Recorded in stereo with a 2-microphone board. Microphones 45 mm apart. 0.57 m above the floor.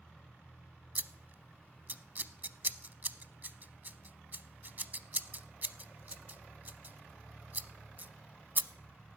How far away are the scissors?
About 0.5 m.